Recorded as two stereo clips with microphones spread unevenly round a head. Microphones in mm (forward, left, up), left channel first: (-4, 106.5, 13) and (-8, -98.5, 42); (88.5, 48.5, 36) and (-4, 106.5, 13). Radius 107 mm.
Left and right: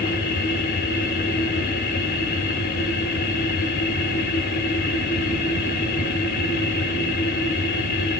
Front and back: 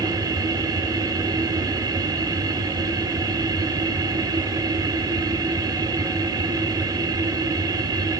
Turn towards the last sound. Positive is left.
turn(degrees=105)